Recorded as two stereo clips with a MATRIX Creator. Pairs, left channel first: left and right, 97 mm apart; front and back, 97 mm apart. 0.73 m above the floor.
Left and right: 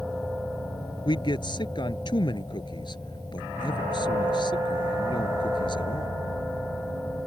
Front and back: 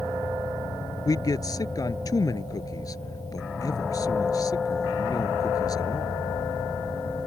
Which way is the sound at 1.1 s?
50° left.